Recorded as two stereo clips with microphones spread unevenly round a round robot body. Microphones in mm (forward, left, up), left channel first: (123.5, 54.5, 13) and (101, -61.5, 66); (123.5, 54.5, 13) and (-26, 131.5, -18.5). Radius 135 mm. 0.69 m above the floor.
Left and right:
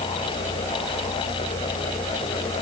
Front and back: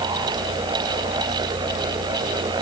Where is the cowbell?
No cowbell in this recording.